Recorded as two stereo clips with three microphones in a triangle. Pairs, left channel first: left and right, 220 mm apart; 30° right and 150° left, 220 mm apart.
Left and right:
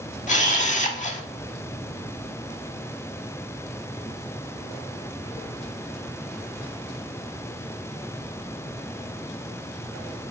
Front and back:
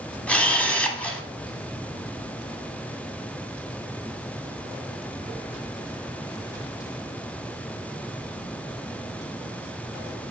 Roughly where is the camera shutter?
Ahead left.